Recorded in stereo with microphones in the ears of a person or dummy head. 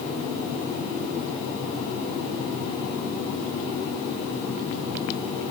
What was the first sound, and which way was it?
Only background noise.